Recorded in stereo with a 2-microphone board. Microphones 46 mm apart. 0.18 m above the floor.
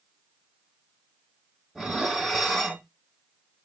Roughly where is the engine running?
I don't hear an engine running.